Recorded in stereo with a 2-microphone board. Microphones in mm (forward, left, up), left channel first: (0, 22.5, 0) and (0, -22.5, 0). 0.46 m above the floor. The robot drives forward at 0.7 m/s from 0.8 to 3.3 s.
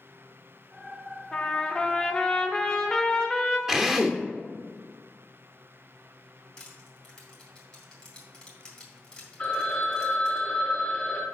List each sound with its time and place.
1.3 s a trumpet: 15° left (ahead or behind), 0.9 m; by 3.6 s 10° left (ahead or behind), 1.4 m
3.7 s a drill: 15° right (ahead or behind), 0.8 m
6.6 s crushing: 15° left (ahead or behind), 2.5 m
9.4 s a phone ringing: 15° left (ahead or behind), 2.5 m